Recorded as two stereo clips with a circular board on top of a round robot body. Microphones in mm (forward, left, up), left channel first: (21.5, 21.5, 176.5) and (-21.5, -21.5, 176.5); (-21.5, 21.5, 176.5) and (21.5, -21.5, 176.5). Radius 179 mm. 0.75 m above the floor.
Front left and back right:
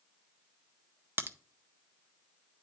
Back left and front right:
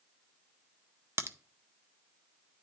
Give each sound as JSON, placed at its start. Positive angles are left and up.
{"t": 1.2, "sound": "a crack", "azimuth_deg": -85, "distance_m": 0.8}